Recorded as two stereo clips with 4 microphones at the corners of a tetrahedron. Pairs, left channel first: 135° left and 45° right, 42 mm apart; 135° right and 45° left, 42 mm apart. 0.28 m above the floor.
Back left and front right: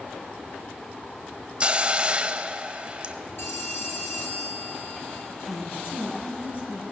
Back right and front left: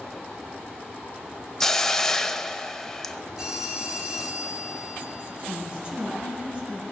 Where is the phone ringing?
120° left, 3.5 m.